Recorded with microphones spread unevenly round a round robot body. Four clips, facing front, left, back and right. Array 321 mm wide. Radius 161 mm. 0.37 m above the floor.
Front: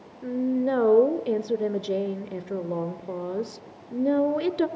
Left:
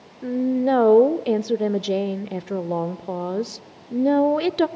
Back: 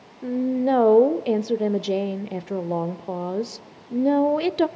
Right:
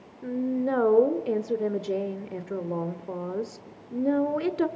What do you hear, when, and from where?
0.2 s a woman speaking: 110° left, 1.2 m